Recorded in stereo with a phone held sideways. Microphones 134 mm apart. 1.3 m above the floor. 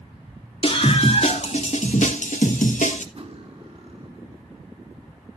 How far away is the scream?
About 3 m.